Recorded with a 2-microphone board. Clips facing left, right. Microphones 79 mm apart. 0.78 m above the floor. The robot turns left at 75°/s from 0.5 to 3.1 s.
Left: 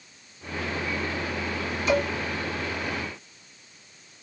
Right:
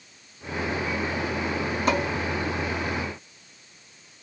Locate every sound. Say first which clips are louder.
1.9 s dishes clattering: left 1 dB; 50° right (ahead or behind), 3 m; by 2.1 s 65° right (ahead or behind), 3 m